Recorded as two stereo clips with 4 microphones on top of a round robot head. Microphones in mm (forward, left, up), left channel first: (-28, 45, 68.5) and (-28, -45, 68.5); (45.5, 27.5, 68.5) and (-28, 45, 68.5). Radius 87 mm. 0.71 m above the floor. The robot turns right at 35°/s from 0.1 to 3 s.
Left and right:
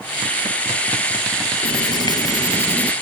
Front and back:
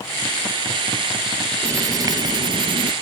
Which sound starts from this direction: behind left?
Writing, at 1.6 s.